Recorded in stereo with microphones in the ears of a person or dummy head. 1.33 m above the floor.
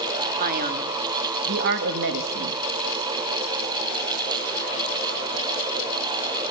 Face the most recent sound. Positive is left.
turn(degrees=-70)  # may be behind; listen again after turning